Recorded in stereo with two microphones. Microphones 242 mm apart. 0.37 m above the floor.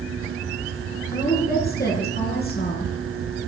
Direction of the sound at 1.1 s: 40° left (ahead or behind).